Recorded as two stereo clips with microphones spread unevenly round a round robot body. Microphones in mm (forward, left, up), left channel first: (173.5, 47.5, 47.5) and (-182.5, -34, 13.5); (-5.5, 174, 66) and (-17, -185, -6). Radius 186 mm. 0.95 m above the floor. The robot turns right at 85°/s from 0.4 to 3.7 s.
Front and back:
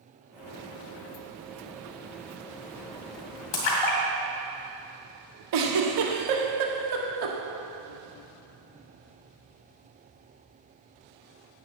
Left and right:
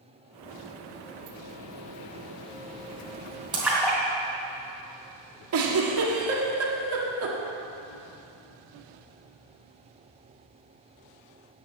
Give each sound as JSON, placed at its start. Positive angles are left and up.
{"t": 3.5, "sound": "a splash", "azimuth_deg": -10, "distance_m": 2.5}
{"t": 5.5, "sound": "a giggle", "azimuth_deg": -140, "distance_m": 1.6}